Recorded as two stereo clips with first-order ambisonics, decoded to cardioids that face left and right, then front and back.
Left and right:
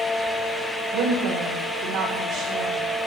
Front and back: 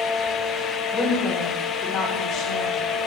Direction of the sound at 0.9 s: 75° right.